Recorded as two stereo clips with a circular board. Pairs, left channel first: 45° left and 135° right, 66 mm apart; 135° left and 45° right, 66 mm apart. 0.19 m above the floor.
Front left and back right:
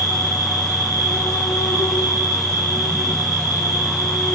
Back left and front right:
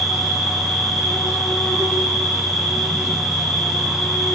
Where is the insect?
50° left, 7.5 m.